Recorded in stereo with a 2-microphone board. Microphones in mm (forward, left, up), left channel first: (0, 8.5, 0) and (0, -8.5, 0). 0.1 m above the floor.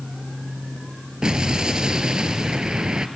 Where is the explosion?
50° right (ahead or behind), 0.8 m.